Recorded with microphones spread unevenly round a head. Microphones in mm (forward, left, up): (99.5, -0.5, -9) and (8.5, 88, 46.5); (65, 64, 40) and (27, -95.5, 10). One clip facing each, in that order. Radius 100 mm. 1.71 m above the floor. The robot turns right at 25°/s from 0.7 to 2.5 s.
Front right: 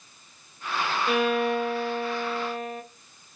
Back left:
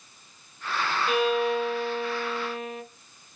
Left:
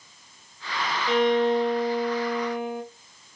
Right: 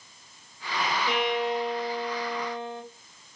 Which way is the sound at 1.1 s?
10° right.